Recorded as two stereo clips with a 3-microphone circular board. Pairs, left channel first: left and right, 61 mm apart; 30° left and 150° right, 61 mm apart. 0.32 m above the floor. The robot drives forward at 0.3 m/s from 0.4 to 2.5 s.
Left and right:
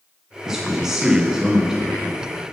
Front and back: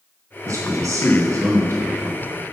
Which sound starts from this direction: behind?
A man speaking, at 0.5 s.